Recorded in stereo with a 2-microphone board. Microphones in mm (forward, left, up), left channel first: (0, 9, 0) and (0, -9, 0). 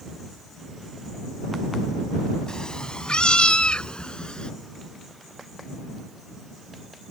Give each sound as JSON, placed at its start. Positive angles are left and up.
{"t": 2.5, "sound": "a cat meowing", "side_deg": 70}